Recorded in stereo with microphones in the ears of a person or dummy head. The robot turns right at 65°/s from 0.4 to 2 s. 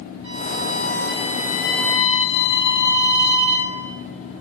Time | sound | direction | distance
0.2 | a violin | 80° right | 3.5 m